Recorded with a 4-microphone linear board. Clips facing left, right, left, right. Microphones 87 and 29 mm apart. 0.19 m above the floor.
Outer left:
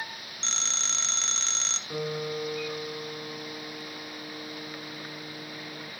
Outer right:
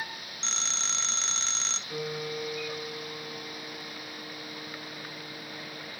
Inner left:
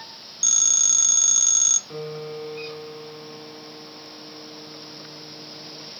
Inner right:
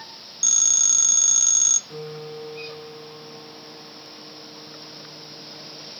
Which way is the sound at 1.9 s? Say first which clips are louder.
Outer left 3 dB, inner left 2 dB; 25° left (ahead or behind).